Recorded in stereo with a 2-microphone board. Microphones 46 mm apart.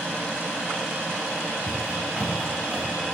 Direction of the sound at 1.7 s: 15° right (ahead or behind).